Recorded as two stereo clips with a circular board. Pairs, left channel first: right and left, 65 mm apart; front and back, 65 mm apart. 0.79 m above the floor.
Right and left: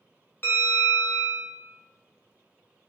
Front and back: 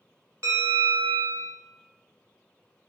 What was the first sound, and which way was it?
A bell, 145° right.